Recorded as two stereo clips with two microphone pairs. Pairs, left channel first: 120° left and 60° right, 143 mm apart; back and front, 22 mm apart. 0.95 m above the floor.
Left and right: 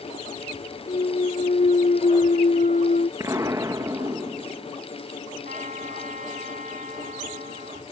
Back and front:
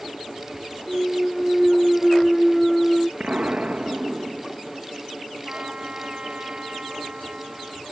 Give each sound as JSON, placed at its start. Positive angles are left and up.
{"t": 0.9, "sound": "a clunk", "azimuth_deg": 90}
{"t": 3.2, "sound": "an explosion", "azimuth_deg": 0}
{"t": 5.5, "sound": "a trumpet", "azimuth_deg": -30}